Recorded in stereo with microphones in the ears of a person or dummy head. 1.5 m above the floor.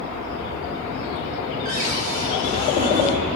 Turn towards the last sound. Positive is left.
turn(degrees=-45)  # may be behind; listen again after turning